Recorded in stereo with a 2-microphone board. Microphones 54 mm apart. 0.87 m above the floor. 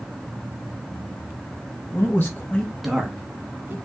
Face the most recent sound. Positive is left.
turn(degrees=-35)  # may be behind; listen again after turning